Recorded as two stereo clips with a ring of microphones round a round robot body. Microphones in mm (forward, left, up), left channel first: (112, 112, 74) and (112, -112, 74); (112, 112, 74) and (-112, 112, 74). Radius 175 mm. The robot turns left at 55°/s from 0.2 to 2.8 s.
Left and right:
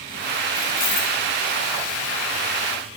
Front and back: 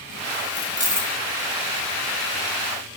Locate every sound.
0.6 s keys jangling: 140° left, 4.5 m; by 1.1 s 110° left, 4.5 m